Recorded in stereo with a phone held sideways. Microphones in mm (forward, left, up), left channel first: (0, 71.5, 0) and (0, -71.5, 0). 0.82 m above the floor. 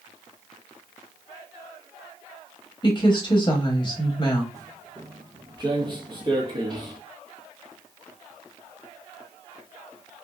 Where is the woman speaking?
30° left (ahead or behind), 0.8 m.